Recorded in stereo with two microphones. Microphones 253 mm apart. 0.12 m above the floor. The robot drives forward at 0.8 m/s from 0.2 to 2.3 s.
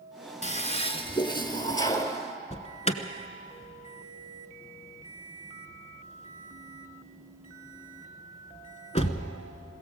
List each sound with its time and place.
0.4 s a toilet flushing: 30° left (ahead or behind), 0.9 m; by 2.2 s 15° left (ahead or behind), 1.8 m
2.5 s an alarm: 25° left (ahead or behind), 1.0 m